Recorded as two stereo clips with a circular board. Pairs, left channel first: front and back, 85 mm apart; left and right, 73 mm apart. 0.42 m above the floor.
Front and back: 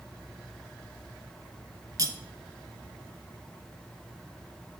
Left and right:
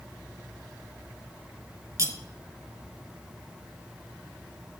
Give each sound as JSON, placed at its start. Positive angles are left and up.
{"t": 2.0, "sound": "cutlery clinking", "azimuth_deg": -135, "distance_m": 0.8}